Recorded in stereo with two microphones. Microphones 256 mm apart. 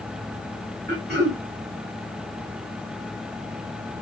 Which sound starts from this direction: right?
Throat clearing, at 0.9 s.